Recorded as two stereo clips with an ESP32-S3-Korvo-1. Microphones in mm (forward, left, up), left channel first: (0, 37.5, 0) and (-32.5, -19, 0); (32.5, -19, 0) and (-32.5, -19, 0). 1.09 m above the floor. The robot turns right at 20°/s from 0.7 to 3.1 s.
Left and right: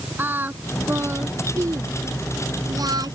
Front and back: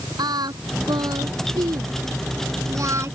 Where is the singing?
175° left; by 3.1 s 135° right.